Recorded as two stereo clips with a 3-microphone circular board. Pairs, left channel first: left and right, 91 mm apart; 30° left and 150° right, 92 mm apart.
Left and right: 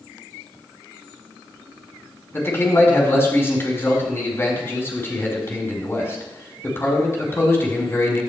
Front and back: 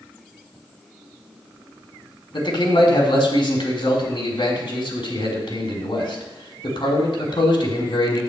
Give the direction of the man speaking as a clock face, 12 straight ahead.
11 o'clock.